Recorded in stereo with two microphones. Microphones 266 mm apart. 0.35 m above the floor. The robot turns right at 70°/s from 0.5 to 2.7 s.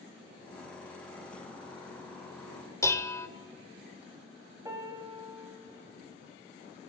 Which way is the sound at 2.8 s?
10° left (ahead or behind).